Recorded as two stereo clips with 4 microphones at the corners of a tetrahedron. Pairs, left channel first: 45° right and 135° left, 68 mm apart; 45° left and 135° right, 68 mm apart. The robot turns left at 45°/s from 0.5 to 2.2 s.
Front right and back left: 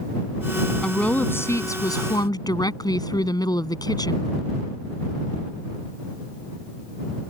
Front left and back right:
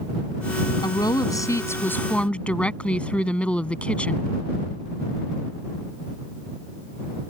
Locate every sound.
0.8 s a woman speaking: 35° left; by 4.3 s 25° right